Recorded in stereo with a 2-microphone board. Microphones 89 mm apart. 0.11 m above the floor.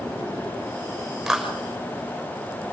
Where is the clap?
5° right (ahead or behind), 6 m.